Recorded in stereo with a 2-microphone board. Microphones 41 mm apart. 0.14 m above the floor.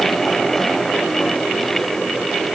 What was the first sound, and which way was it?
Only background noise.